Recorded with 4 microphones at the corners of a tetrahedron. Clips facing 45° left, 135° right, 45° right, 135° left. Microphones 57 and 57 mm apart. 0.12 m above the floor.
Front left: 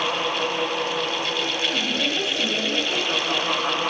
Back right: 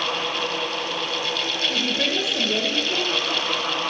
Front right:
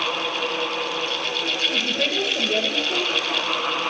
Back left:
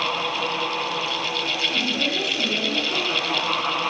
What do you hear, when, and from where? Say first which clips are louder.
1.7 s a woman speaking: back right 1 dB, even; 85° right, 1.5 m